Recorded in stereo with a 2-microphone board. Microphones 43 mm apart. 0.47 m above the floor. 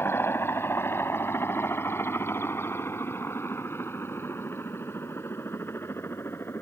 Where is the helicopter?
65° left (ahead or behind); by 6.6 s 70° left (ahead or behind).